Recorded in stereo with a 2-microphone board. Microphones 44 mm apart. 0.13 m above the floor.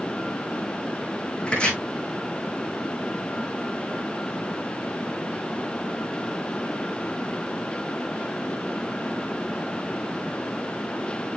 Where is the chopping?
25° left (ahead or behind), 4.5 m.